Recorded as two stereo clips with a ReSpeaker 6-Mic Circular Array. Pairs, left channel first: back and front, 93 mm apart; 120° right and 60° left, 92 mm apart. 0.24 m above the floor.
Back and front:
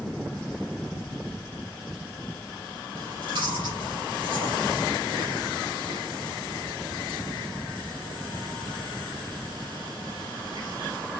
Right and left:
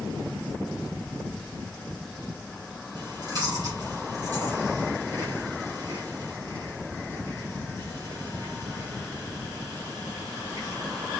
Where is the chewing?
20° left, 5 m.